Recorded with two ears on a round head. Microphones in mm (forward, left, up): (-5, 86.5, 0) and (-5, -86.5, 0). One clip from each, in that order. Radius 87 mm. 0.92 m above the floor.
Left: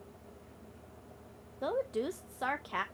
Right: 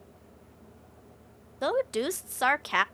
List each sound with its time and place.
1.6 s a woman speaking: 55° right (ahead or behind), 0.5 m